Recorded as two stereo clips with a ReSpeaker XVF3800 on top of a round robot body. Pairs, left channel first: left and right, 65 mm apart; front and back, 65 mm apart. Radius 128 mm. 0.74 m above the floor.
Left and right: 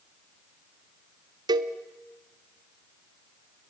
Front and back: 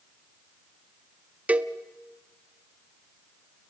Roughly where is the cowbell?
Right.